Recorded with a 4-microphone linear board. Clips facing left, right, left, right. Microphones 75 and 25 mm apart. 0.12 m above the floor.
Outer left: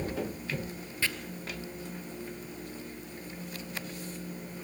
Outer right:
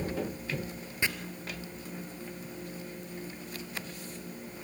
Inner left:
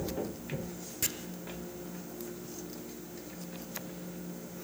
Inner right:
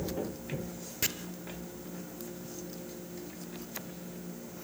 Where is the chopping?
20° right (ahead or behind), 1.2 m.